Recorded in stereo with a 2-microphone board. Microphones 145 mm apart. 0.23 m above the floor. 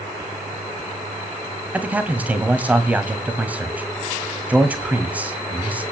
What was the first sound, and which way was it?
A man speaking, 10° right (ahead or behind).